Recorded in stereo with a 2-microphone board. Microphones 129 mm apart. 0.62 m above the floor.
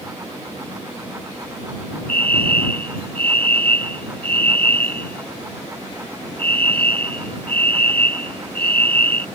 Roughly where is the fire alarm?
Centre.